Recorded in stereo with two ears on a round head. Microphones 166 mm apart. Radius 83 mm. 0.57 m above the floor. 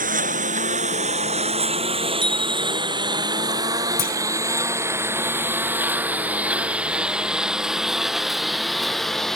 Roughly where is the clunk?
Left.